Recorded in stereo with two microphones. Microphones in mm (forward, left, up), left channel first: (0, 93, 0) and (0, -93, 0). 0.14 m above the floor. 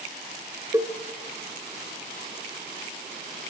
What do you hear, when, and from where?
0.7 s a cowbell: 20° right (ahead or behind), 1.3 m